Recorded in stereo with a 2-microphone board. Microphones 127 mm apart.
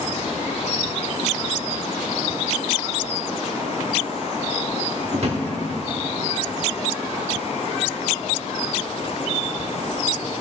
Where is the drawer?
55° right (ahead or behind), 1.2 m.